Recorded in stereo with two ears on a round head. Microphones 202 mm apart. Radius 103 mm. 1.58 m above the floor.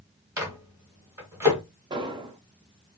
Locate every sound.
0.4 s a microwave: 10° right (ahead or behind), 1.4 m
1.9 s an explosion: 20° right (ahead or behind), 0.5 m